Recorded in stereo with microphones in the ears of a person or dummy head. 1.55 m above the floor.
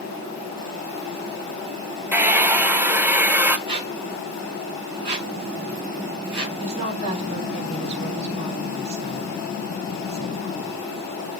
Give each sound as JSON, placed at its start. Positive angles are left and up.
{"t": 2.1, "sound": "a hair dryer", "side_deg": -10, "distance_m": 0.7}
{"t": 3.7, "sound": "a squeak", "side_deg": -30, "distance_m": 4.5}
{"t": 6.6, "sound": "a woman speaking", "side_deg": -35, "distance_m": 5.5}